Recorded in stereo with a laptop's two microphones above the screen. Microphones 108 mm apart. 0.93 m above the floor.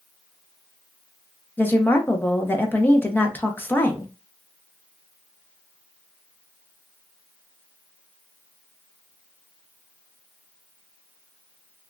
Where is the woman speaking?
20° left (ahead or behind), 0.7 m.